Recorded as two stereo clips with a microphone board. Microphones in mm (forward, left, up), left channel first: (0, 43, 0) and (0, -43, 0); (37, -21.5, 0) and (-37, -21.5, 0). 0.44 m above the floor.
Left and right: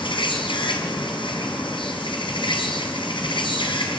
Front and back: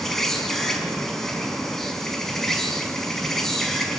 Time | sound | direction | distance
0.0 | an insect | 85° left | 4 m